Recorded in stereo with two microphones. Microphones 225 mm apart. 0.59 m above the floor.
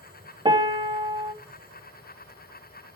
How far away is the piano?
About 0.6 m.